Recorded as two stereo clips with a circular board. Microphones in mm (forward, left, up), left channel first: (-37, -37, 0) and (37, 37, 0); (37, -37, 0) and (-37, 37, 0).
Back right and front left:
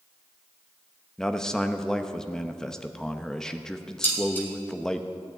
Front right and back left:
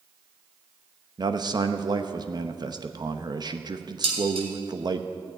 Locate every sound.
1.2 s a man speaking: 145° left, 0.8 m
4.0 s dishes clattering: 155° left, 2.5 m